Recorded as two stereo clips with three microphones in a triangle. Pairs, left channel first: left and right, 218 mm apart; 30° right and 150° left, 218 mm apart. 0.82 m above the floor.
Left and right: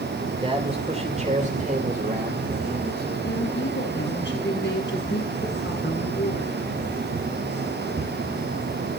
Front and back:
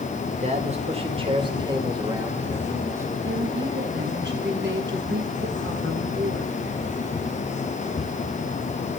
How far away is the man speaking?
About 3.5 m.